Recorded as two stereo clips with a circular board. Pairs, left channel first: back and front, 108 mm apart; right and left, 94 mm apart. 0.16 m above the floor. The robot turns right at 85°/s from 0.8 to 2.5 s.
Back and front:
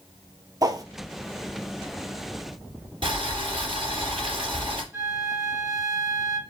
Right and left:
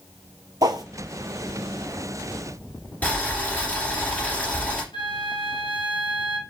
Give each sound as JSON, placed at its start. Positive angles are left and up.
{"t": 0.6, "sound": "a whoosh", "azimuth_deg": 50, "distance_m": 0.6}
{"t": 3.0, "sound": "boiling", "azimuth_deg": -20, "distance_m": 2.5}
{"t": 4.9, "sound": "a flute", "azimuth_deg": -65, "distance_m": 1.1}